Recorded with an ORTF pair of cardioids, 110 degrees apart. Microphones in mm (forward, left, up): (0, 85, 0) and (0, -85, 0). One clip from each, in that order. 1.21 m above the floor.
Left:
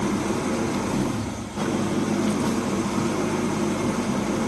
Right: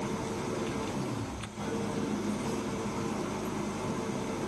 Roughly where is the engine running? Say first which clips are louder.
Left 9 dB; ahead left.